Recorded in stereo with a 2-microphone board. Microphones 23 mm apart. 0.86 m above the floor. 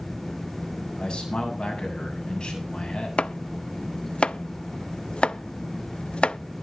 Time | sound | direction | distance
1.0 | a man speaking | 35° left (ahead or behind) | 7 m
3.2 | chopping | 55° left (ahead or behind) | 0.5 m